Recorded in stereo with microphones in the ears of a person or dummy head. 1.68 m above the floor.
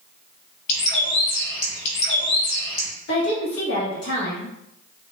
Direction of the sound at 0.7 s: 50° left (ahead or behind).